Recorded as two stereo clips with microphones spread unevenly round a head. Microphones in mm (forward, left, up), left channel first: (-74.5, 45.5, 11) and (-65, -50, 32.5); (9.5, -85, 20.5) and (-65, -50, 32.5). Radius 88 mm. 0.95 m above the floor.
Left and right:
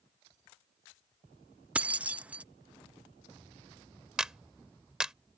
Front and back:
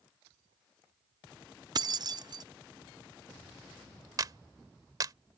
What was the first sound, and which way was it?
Keys jangling, 165° right.